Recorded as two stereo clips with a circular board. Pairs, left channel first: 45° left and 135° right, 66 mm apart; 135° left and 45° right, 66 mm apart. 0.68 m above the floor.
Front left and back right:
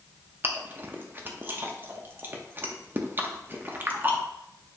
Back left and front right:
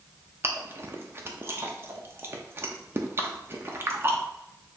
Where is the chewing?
85° right, 0.7 m.